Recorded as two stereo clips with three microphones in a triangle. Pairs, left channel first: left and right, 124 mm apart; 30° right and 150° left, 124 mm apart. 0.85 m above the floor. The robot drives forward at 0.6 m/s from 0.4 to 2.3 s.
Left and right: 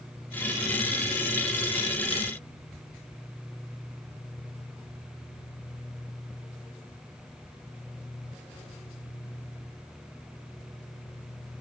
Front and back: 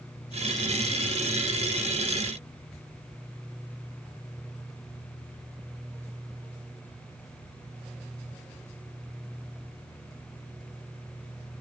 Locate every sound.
Only background noise.